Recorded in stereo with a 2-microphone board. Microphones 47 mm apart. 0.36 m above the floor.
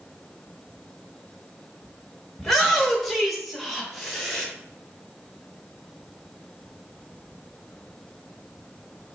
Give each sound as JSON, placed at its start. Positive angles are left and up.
{"t": 2.4, "sound": "a shout", "side_deg": 5, "distance_m": 0.8}